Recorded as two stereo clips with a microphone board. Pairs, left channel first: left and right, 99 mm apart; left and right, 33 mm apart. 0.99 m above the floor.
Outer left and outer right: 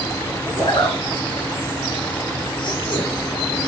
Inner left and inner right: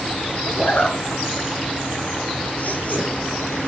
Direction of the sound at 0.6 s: 55° left (ahead or behind).